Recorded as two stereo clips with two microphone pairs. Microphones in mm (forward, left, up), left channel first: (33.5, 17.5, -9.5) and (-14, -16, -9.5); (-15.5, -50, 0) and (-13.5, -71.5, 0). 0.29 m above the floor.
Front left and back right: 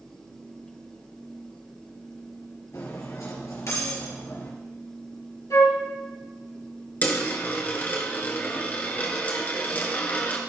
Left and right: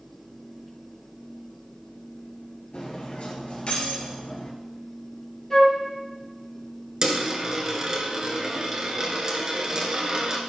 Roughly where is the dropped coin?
Ahead right.